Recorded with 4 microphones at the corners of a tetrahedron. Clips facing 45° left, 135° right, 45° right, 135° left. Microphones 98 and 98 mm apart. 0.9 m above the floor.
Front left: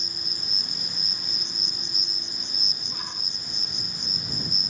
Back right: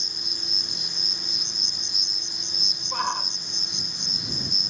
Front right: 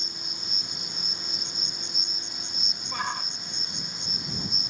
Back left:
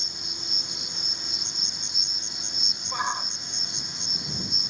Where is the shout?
150° right.